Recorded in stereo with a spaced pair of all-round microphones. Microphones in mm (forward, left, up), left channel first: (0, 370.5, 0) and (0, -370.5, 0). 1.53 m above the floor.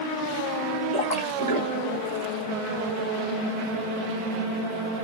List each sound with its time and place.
0.9 s a splash: 10° left (ahead or behind), 2.5 m